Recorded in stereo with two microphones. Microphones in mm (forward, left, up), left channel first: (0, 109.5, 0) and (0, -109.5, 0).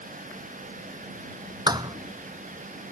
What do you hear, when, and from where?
1.7 s a thud: 20° right (ahead or behind)